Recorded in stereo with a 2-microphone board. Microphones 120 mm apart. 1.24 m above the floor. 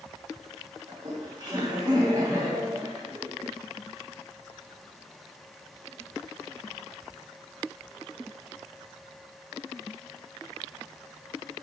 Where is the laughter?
35° right (ahead or behind), 2.5 m.